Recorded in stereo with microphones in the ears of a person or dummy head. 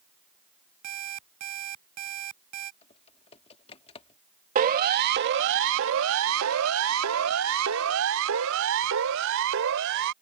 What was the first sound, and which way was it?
An alarm clock, 40° right (ahead or behind).